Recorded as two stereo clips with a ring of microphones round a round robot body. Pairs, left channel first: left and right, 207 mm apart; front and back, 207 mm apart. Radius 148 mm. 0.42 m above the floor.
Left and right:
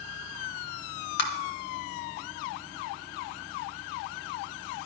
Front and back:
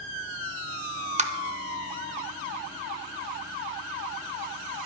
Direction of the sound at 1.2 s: 125° left.